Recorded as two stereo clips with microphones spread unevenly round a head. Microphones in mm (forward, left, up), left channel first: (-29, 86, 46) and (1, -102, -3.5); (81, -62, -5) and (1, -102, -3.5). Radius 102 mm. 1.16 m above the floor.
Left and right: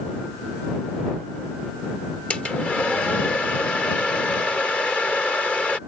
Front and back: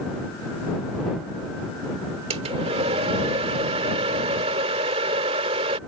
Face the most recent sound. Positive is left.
turn(degrees=180)